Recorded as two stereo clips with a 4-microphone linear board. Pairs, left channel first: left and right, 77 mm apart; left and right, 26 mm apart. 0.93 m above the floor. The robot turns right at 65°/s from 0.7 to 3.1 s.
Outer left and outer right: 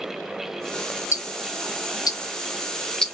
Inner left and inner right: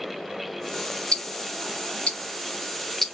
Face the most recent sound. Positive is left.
turn(degrees=5)  # may be behind; listen again after turning